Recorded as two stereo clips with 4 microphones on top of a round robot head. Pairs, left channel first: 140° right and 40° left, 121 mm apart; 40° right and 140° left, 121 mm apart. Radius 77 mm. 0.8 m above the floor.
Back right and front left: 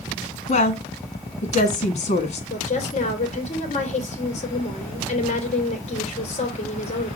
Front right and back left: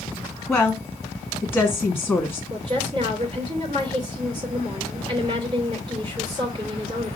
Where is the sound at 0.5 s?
135° right, 1.4 m.